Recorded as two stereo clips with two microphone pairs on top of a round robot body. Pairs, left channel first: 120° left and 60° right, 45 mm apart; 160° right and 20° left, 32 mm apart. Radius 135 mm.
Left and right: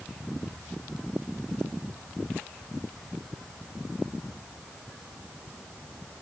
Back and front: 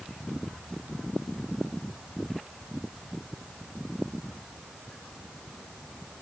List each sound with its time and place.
Only background noise.